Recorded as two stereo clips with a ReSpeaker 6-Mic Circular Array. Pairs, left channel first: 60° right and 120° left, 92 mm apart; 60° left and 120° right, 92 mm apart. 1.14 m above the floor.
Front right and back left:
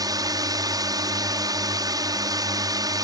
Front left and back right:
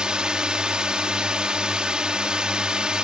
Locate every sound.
0.0 s a drone: 160° left